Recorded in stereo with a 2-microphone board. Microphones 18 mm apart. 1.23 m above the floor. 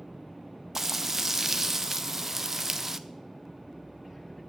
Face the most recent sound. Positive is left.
turn(degrees=-25)  # may be behind; listen again after turning